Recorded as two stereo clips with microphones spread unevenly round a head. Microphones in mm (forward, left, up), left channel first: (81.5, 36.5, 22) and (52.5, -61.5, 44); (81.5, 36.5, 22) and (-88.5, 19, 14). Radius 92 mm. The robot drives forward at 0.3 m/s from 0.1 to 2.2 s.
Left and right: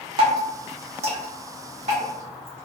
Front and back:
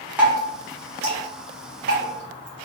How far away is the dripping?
About 0.7 m.